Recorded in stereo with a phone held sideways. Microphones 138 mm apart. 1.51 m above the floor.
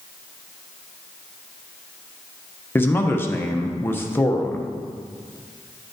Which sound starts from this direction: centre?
A man speaking, at 2.8 s.